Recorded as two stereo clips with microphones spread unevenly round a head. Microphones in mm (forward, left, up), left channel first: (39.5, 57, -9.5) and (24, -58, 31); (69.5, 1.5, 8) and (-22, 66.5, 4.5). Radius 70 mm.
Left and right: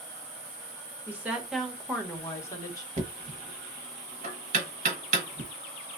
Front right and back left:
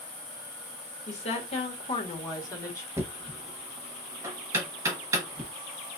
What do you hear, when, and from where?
1.1 s a woman speaking: 20° right, 1.5 m; by 2.9 s 30° left, 1.7 m
3.0 s knocking: 140° right, 1.1 m